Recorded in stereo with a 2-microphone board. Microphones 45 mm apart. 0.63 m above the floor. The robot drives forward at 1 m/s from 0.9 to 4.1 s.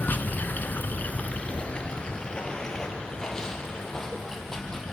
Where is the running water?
45° left (ahead or behind), 1.3 m; by 4.9 s 15° left (ahead or behind), 4 m.